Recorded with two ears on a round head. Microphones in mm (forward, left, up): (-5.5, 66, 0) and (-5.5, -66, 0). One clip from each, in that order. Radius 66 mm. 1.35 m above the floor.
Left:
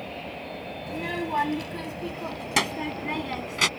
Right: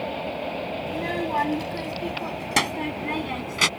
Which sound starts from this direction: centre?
A child speaking, at 0.9 s.